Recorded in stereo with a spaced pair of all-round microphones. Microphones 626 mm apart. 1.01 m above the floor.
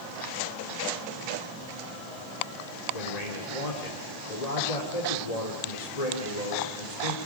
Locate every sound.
2.9 s a man speaking: 85° left, 3.5 m